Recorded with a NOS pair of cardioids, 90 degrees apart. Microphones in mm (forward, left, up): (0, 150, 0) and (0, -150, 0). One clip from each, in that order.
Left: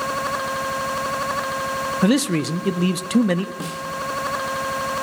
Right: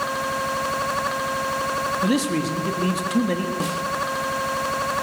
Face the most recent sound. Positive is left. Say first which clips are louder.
# right 4 dB
turn(degrees=10)